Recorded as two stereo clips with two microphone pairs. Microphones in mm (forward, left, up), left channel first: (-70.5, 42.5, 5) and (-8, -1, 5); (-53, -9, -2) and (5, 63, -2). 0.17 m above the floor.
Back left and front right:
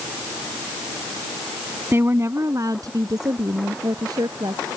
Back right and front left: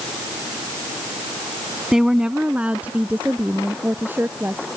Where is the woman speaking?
30° right; by 4.7 s 15° right.